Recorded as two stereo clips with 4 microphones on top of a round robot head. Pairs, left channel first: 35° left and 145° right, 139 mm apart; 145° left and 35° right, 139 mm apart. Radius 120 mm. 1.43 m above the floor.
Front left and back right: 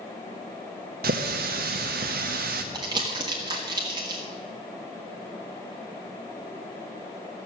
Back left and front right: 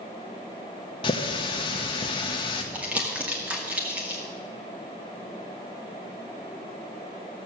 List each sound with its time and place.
1.0 s a running tap: 160° right, 0.6 m
2.7 s crumpling: 110° right, 0.6 m